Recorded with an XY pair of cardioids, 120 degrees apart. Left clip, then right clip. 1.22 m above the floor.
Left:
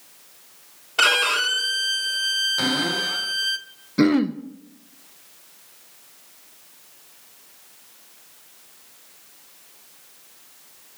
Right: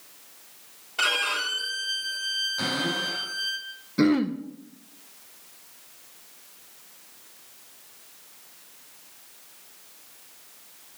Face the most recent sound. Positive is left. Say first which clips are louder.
# left 3 dB
turn(degrees=20)